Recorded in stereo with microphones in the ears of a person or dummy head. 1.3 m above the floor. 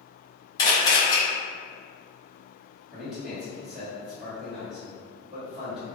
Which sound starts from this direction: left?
A camera shutter, at 0.6 s.